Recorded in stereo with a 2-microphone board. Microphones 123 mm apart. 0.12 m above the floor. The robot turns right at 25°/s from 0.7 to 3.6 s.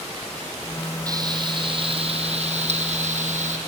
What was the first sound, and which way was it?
Frying, 150° right.